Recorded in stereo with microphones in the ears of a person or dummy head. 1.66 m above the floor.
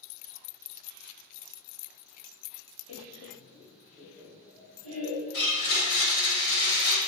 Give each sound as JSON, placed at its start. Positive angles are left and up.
{"t": 2.9, "sound": "laughter", "side_deg": 75, "distance_m": 0.7}
{"t": 5.3, "sound": "a blender", "side_deg": 65, "distance_m": 2.0}